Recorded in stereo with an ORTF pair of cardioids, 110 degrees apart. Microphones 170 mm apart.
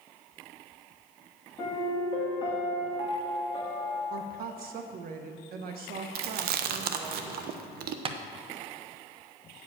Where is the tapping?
35° right, 0.8 m.